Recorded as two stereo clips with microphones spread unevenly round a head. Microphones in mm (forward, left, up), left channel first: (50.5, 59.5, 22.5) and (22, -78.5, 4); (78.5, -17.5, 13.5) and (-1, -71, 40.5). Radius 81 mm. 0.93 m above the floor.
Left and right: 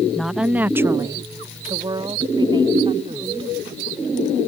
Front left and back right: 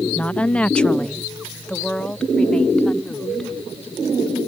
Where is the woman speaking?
15° right; by 3.5 s 50° right.